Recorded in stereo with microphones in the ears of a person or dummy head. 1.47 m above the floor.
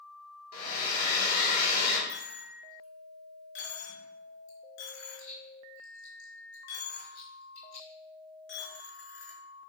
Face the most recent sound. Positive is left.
turn(degrees=65)  # may be behind; listen again after turning